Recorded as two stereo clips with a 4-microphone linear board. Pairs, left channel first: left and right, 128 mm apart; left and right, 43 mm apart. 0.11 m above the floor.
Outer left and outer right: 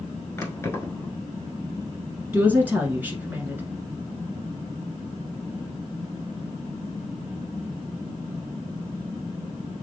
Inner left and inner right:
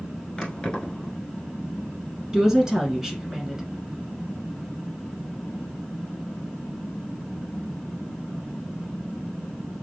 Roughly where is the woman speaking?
Centre.